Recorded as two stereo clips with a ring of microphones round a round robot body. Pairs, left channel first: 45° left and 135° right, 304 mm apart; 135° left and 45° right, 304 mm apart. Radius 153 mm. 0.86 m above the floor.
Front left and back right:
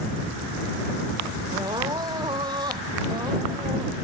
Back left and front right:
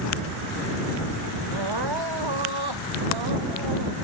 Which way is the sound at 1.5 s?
60° right.